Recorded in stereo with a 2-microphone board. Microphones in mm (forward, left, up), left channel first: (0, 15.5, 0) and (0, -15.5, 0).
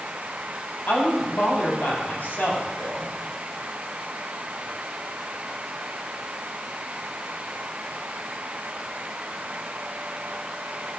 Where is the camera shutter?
No camera shutter in this recording.